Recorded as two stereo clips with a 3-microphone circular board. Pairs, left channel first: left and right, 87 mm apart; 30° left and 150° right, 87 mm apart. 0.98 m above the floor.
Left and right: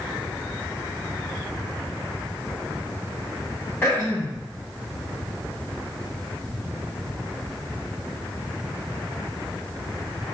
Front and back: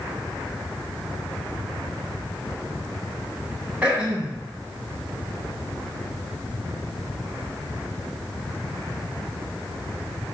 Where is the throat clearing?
140° left, 1.1 m.